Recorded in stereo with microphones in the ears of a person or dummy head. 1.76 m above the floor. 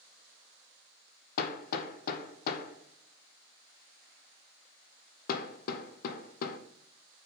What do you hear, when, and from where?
1.4 s hammering: 50° left (ahead or behind), 0.6 m